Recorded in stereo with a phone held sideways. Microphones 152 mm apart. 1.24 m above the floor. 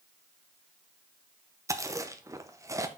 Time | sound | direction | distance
1.7 | chewing | 20° right (ahead or behind) | 0.7 m